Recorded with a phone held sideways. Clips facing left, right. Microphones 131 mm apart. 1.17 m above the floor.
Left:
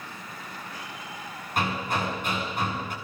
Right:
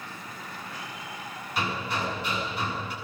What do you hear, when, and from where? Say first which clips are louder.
1.6 s hammering: left 3 dB; 50° left (ahead or behind), 8.5 m